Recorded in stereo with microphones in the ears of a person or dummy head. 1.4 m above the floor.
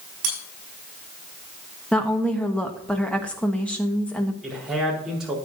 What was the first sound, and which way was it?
Cutlery clinking, 45° right (ahead or behind).